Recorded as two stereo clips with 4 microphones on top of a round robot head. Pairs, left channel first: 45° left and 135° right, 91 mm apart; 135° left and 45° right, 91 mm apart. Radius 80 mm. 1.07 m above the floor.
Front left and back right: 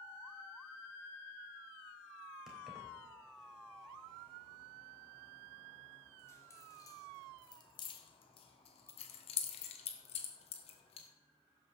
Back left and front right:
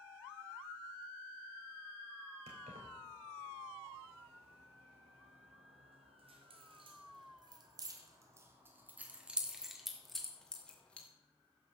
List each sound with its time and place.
2.5 s keys jangling: 50° right, 3.5 m; by 11.1 s 60° left, 2.5 m